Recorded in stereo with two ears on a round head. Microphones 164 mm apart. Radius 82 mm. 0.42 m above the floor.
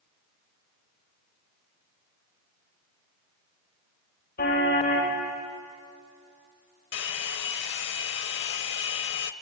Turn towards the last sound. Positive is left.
turn(degrees=70)  # may be behind; listen again after turning